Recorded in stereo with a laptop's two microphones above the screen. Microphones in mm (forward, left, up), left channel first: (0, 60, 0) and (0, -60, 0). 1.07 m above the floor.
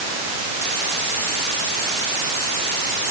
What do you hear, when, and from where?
Only background noise.